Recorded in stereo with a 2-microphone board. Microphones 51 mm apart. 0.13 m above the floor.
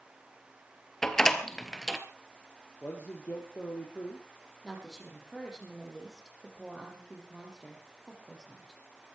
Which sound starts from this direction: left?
A man speaking, at 2.8 s.